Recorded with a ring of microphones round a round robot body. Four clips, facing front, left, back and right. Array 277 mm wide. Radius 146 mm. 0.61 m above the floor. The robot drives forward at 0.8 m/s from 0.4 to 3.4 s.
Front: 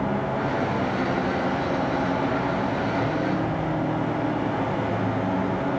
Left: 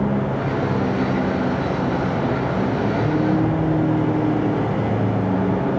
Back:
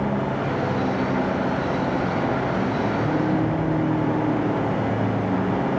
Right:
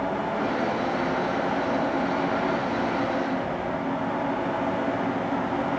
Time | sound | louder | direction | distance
0.0 | a vehicle | left 4 dB, back 1 dB | 105° left | ?